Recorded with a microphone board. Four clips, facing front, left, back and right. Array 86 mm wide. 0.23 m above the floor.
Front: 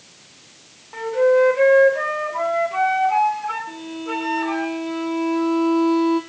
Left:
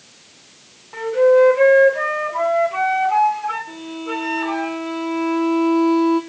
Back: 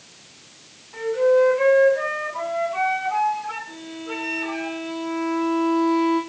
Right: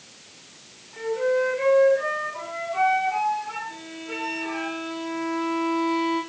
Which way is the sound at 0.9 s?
50° left.